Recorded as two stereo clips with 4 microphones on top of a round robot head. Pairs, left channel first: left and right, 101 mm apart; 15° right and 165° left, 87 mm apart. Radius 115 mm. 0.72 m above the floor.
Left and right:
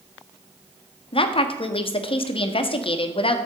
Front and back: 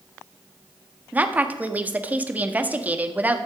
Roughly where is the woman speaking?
Left.